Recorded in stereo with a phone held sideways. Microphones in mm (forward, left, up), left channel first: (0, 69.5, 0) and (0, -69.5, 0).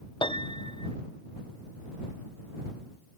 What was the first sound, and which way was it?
A piano, 35° left (ahead or behind).